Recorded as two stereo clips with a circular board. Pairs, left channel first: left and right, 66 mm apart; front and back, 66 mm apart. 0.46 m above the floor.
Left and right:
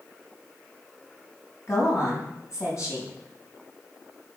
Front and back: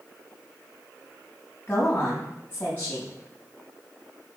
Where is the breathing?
I don't hear breathing.